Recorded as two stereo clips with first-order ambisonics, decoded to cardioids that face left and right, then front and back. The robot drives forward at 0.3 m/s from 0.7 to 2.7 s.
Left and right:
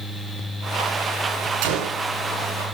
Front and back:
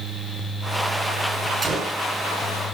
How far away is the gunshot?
About 2.5 m.